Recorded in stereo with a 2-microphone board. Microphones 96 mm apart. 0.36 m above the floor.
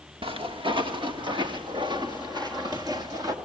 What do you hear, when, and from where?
0.2 s footsteps: 65° right (ahead or behind), 2 m; by 3.3 s 40° right (ahead or behind), 3 m